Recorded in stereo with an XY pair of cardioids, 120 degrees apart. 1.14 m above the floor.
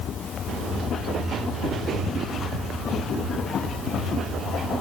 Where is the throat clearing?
No throat clearing in this recording.